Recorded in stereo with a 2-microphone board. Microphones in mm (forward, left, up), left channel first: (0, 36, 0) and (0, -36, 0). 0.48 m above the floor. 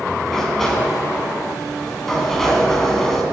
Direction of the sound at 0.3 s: 5° left (ahead or behind).